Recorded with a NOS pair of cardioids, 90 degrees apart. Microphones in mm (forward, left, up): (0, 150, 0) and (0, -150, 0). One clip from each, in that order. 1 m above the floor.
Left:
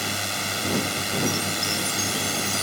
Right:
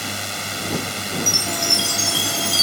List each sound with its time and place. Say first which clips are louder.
0.0 s a drone: even; straight ahead
1.3 s a chime: right 6 dB; 60° right